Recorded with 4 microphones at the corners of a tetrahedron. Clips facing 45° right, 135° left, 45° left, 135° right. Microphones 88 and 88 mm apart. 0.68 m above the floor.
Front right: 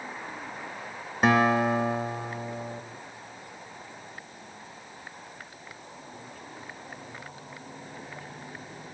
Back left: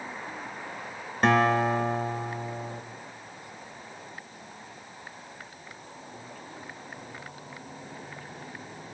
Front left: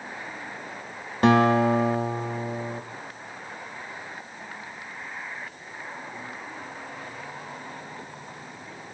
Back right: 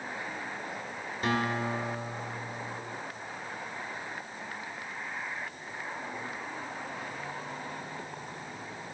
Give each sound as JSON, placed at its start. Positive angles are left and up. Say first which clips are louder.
{"t": 1.2, "sound": "a guitar", "louder": "even, front left 12 dB", "azimuth_deg": 40, "distance_m": 0.7}